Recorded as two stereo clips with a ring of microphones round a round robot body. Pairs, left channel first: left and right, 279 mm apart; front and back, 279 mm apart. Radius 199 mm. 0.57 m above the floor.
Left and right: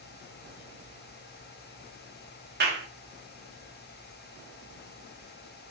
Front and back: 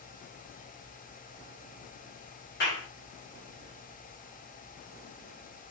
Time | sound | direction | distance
2.6 | a clap | 45° right | 0.8 m